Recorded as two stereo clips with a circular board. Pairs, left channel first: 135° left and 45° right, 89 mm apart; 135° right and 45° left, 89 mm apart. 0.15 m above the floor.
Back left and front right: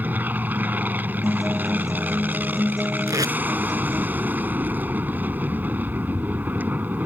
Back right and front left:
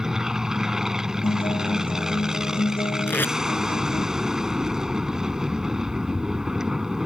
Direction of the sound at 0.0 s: 30° right.